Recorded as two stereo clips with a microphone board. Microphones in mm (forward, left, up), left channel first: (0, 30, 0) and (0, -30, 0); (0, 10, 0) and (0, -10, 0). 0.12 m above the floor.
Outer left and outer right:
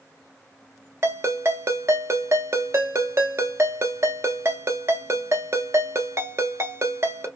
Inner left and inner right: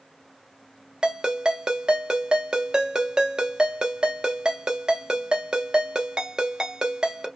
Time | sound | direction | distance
1.0 | a ringtone | 50° right (ahead or behind) | 0.7 m